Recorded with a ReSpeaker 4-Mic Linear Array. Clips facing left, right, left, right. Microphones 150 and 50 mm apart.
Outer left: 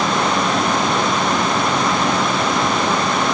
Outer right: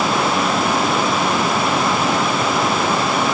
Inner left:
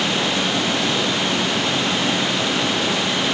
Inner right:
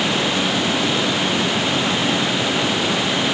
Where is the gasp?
I don't hear a gasp.